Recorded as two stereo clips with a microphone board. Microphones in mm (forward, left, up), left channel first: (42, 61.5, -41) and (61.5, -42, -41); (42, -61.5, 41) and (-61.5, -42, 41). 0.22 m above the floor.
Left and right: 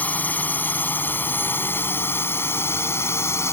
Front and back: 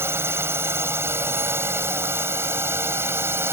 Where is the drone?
150° left; by 3.5 s 130° left.